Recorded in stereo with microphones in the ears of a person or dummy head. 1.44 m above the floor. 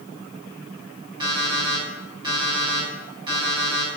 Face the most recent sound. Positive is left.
turn(degrees=-25)  # may be behind; listen again after turning